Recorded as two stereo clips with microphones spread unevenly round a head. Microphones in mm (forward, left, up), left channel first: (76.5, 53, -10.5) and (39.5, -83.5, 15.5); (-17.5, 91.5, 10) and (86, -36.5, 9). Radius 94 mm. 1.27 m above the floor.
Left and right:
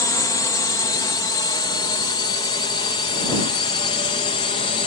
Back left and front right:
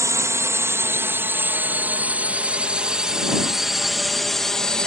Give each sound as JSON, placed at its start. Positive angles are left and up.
{"t": 0.0, "sound": "a drone", "azimuth_deg": 15}